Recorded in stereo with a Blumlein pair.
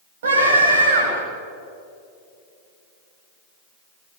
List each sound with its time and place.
0.2 s a scream: 55° right, 8 m